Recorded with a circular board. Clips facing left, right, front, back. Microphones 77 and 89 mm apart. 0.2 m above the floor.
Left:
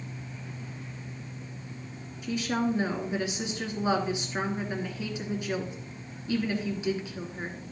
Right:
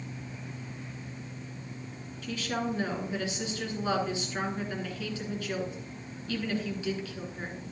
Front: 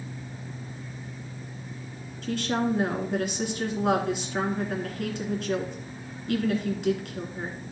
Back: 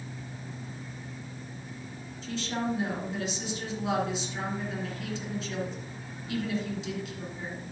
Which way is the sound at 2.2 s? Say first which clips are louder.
Left 4 dB, front 5 dB; 20° left.